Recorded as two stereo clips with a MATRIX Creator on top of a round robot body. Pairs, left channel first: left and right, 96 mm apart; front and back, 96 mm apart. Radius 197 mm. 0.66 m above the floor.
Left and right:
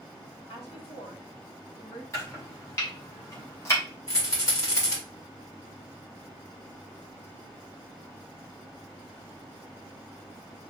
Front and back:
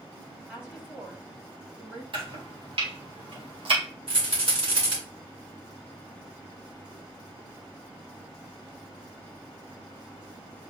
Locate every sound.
0.5 s a woman speaking: 110° left, 2 m
2.1 s chopping: 150° left, 1.6 m
4.1 s a rattle: 145° left, 2.5 m